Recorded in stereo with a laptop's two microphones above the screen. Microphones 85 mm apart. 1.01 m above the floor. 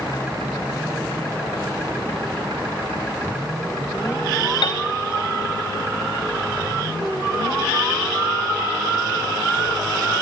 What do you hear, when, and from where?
4.6 s a piano: 65° left (ahead or behind), 2.5 m